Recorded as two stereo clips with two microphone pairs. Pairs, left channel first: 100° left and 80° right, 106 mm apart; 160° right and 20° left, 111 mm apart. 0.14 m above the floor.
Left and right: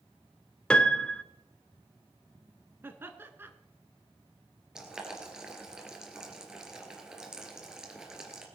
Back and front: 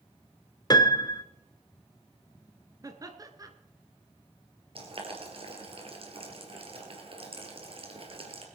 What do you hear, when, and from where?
0.7 s a piano: 175° left, 0.7 m
2.8 s laughter: 15° right, 1.5 m
4.8 s boiling: 5° left, 2.5 m